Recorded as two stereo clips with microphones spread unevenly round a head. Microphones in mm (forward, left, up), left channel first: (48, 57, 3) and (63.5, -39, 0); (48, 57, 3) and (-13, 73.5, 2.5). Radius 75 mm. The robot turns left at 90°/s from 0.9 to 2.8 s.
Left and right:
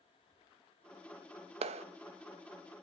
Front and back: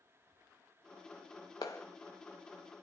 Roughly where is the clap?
Right.